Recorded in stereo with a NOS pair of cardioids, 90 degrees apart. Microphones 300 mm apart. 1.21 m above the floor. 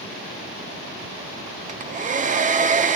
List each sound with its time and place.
1.7 s a hair dryer: 25° right, 0.5 m